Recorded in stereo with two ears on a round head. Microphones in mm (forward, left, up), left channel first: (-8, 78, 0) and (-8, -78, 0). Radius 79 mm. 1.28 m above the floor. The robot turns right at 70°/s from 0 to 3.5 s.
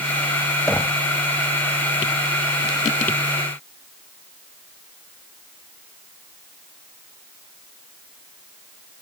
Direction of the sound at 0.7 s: 5° left (ahead or behind).